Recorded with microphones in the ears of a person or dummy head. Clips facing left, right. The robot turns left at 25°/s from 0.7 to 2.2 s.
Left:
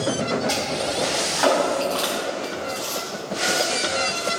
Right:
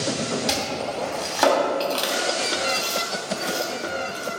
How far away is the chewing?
About 2.5 m.